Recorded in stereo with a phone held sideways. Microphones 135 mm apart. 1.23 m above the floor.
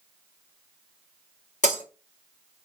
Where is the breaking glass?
65° left (ahead or behind), 1.9 m.